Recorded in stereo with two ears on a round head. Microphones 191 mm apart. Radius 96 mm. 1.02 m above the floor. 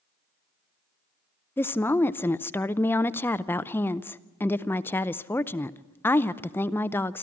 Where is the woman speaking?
10° left (ahead or behind), 0.5 m.